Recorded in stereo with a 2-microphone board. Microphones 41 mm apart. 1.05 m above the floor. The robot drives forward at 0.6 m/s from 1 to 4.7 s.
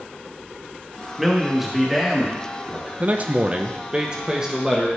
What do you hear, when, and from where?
1.2 s a man speaking: 10° right (ahead or behind), 1.2 m; by 2.9 s 5° right (ahead or behind), 2 m
3.0 s a man speaking: 40° right (ahead or behind), 0.6 m; by 4.9 s 20° right (ahead or behind), 1.1 m